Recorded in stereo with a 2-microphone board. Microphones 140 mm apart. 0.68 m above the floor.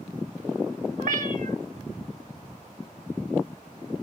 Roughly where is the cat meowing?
Right.